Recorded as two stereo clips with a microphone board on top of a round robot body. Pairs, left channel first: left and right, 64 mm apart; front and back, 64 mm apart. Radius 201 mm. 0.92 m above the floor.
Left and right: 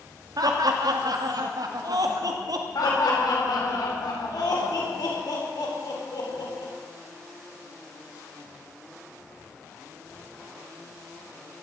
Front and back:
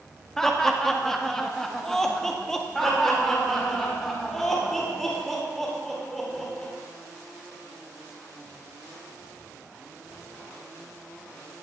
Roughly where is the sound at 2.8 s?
Left.